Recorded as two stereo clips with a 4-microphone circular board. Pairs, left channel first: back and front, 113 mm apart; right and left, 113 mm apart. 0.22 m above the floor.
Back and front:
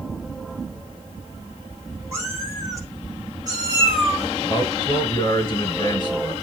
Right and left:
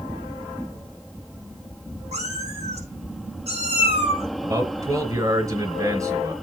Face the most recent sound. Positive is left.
turn(degrees=135)